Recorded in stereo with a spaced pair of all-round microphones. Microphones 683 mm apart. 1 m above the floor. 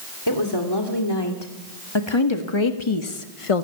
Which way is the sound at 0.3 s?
35° left (ahead or behind).